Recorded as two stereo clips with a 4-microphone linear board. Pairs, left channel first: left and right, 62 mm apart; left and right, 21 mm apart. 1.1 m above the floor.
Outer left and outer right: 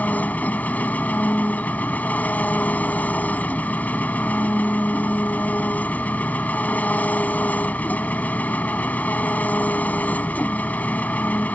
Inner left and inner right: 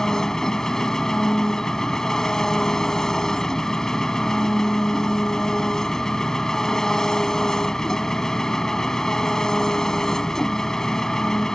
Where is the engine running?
25° left (ahead or behind).